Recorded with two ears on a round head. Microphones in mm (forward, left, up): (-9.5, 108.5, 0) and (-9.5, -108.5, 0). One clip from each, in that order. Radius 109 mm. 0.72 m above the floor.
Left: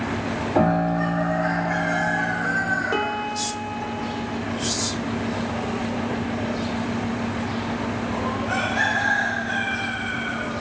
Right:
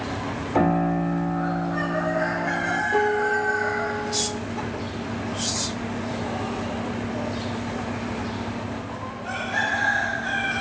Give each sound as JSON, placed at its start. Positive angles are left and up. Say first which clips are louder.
{"t": 0.6, "sound": "a piano", "louder": "left 1 dB", "side_deg": -35, "distance_m": 2.0}
{"t": 2.9, "sound": "a piano", "louder": "right 4 dB", "side_deg": 60, "distance_m": 1.5}